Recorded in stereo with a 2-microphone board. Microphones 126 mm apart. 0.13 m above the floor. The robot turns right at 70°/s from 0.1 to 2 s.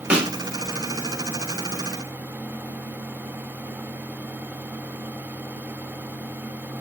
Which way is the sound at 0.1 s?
10° right (ahead or behind).